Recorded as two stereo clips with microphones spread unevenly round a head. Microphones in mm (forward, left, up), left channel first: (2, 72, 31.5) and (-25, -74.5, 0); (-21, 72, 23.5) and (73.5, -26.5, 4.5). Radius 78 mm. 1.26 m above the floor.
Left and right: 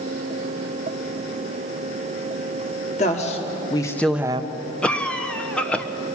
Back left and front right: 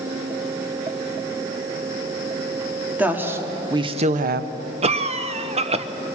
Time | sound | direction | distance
3.0 | a woman speaking | 35° left | 2.5 m
4.8 | a cough | 5° right | 1.0 m